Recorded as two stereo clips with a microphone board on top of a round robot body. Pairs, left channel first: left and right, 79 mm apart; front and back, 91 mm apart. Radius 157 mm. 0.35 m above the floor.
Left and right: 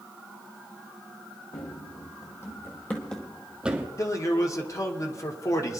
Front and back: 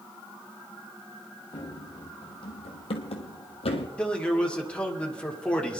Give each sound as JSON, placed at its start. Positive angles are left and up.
{"t": 1.5, "sound": "running footsteps", "azimuth_deg": 50, "distance_m": 1.9}
{"t": 4.0, "sound": "a man speaking", "azimuth_deg": 75, "distance_m": 1.9}